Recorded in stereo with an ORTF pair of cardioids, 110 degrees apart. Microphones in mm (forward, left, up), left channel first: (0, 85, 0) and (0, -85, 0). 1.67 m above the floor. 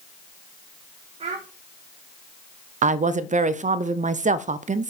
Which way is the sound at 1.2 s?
40° right.